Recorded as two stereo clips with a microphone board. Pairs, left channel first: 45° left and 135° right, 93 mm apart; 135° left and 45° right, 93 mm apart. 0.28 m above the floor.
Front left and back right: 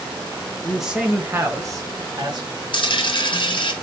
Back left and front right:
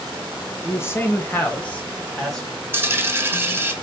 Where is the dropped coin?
20° left, 1.0 m.